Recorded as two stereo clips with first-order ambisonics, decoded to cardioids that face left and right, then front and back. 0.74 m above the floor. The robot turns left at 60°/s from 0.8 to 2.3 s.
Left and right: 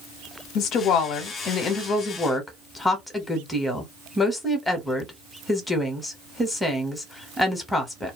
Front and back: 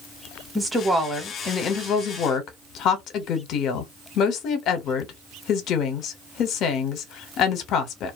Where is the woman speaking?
100° left, 0.8 m; by 8.2 s 10° left, 0.8 m.